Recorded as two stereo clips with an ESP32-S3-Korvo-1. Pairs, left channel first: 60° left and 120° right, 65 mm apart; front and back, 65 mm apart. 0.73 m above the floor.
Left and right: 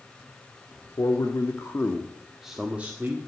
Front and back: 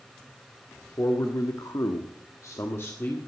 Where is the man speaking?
40° left, 1.6 m; by 3.2 s 60° right, 1.8 m.